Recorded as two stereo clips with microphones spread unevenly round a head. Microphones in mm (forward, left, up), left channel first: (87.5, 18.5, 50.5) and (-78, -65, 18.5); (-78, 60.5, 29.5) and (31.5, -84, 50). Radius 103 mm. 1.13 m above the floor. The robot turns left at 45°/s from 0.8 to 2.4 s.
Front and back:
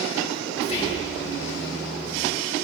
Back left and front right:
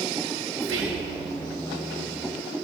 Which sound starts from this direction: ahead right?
Whispering, at 0.6 s.